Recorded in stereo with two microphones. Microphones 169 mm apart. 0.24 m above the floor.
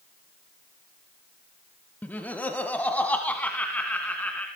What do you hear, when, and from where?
2.0 s laughter: 10° left (ahead or behind), 1.0 m